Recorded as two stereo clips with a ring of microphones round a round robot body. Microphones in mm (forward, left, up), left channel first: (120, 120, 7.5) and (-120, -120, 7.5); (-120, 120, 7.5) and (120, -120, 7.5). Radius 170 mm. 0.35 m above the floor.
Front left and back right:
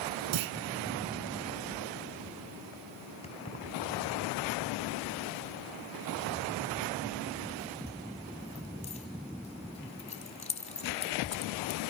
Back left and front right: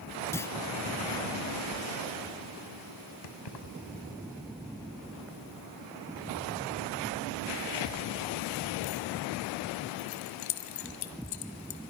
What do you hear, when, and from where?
0.3 s a clunk: 140° right, 0.9 m
3.2 s keys jangling: 115° left, 1.6 m